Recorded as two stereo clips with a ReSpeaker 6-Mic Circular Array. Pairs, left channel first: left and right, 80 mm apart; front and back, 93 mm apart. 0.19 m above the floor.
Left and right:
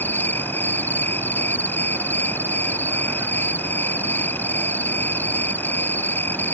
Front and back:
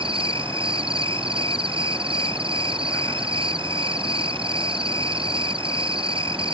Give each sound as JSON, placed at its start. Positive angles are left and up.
{"t": 0.0, "sound": "an insect", "azimuth_deg": 155}